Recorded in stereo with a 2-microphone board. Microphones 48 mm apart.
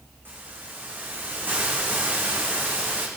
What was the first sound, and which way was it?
A hiss, 40° right (ahead or behind).